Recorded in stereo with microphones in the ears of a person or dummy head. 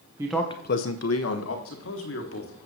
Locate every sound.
0.2 s a man speaking: 25° right (ahead or behind), 0.7 m; by 1.6 s 80° left, 1.6 m
1.6 s a man speaking: 55° left (ahead or behind), 1.5 m